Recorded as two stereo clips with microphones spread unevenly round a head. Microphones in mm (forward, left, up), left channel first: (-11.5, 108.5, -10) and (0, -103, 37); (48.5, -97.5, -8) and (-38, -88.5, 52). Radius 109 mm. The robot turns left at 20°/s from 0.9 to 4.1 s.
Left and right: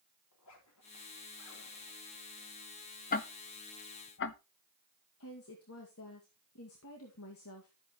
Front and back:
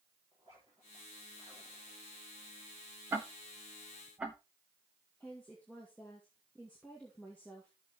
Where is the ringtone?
I don't hear a ringtone.